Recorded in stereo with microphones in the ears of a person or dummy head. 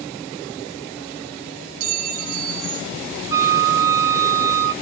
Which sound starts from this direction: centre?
A flute, at 3.3 s.